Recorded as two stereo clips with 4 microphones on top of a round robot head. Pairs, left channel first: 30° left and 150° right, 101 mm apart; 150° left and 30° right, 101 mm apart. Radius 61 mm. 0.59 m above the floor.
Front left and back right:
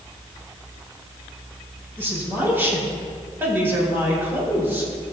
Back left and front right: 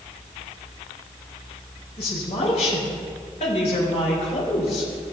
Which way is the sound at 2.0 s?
145° left.